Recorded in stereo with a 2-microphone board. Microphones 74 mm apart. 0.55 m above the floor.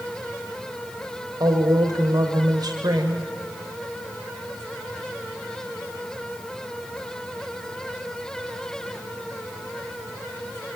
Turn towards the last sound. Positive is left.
turn(degrees=-60)  # may be behind; listen again after turning